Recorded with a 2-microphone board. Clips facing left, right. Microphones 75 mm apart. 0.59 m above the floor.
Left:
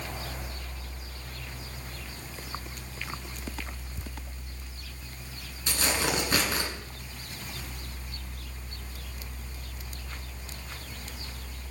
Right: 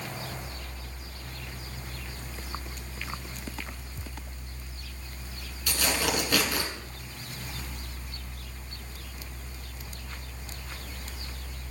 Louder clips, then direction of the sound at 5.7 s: Even; 25° left (ahead or behind).